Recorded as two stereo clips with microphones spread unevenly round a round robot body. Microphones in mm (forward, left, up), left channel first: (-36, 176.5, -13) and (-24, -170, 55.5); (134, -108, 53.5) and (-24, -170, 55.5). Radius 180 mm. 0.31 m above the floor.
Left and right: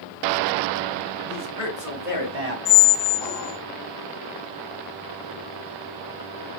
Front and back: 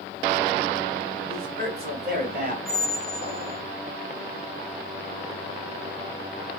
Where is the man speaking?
Straight behind, 2.5 m; by 2.5 s 140° right, 2 m.